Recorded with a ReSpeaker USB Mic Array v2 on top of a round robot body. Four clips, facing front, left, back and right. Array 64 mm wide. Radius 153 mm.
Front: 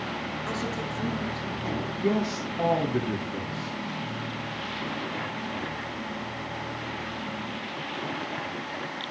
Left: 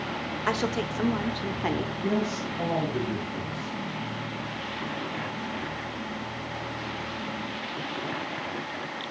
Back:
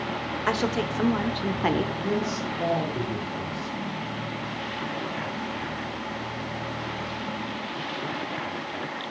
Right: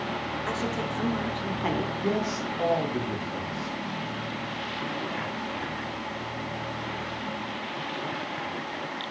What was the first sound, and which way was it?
A woman speaking, 140° left.